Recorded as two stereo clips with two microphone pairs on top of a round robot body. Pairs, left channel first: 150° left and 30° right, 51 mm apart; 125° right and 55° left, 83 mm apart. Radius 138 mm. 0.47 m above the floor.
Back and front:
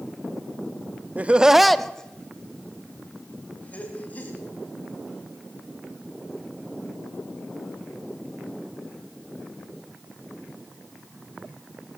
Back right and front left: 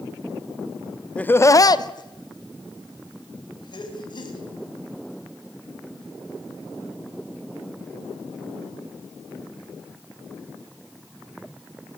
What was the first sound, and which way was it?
Laughter, 60° right.